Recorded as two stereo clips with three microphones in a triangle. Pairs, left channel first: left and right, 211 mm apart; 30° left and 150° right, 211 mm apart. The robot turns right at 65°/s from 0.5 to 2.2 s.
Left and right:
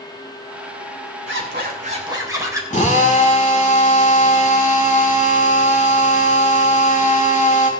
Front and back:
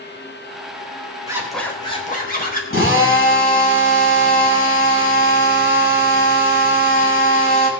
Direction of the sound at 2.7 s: 40° left.